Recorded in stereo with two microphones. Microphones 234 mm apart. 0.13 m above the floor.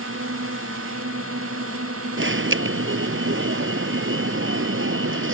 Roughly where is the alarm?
Right.